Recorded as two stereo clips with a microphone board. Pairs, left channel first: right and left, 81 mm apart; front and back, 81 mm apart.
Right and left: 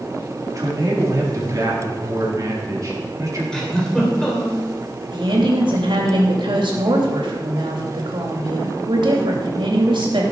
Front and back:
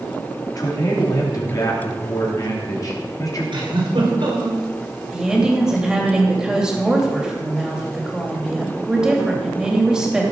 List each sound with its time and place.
0.6 s a man speaking: 40° left, 4 m
3.5 s a giggle: 175° right, 3.5 m
5.1 s a woman speaking: 100° left, 3 m